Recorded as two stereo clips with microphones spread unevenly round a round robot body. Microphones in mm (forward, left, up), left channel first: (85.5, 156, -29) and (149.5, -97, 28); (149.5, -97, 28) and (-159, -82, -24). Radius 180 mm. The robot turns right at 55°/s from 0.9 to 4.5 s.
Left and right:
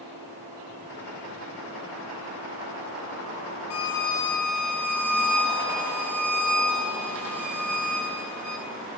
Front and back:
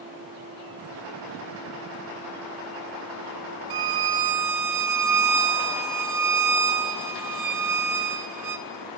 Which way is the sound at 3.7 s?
150° left.